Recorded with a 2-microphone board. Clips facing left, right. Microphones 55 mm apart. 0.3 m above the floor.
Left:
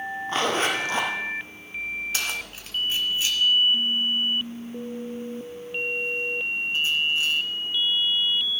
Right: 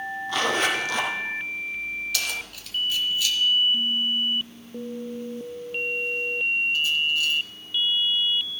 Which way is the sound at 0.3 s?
30° left (ahead or behind).